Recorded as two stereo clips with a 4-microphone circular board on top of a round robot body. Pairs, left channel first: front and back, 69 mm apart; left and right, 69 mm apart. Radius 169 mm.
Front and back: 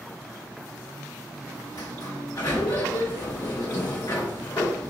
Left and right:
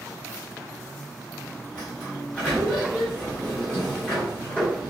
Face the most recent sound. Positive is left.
turn(degrees=20)